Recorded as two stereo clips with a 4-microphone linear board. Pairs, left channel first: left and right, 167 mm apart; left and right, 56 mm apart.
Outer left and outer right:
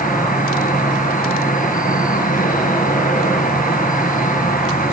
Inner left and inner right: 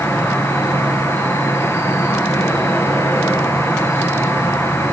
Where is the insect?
55° left (ahead or behind), 2 m.